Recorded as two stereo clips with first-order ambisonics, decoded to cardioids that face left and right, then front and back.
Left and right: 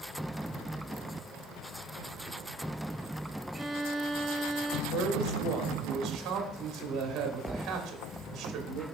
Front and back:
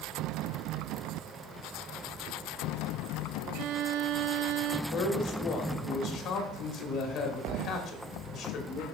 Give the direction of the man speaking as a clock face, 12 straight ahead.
1 o'clock.